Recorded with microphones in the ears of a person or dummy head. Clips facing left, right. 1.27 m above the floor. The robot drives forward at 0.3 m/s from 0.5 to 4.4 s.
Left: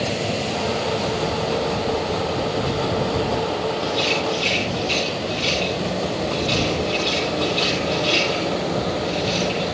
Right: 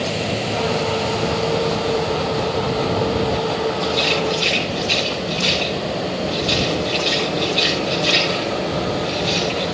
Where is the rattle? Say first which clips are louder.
Right 2 dB; 25° right (ahead or behind), 7.5 m.